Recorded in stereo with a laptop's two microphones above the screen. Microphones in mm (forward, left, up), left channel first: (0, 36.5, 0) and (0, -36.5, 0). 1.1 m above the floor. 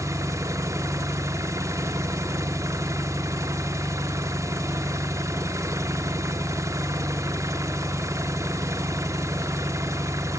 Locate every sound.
0.0 s an engine running: 45° right (ahead or behind), 0.8 m